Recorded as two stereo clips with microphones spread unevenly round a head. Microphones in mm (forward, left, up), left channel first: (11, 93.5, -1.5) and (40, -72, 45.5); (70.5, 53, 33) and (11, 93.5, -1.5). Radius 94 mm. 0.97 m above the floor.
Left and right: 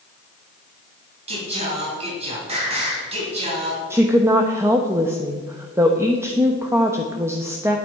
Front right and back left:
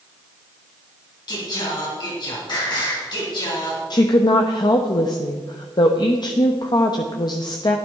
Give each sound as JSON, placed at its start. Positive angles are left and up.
{"t": 1.3, "sound": "singing", "azimuth_deg": -30, "distance_m": 3.5}
{"t": 3.9, "sound": "a woman speaking", "azimuth_deg": 0, "distance_m": 0.9}